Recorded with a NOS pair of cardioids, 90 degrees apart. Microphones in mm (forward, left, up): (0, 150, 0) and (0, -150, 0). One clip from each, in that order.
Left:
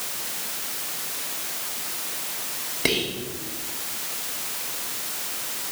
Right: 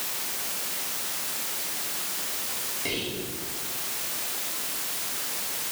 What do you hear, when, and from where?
2.9 s whispering: 65° left, 1.3 m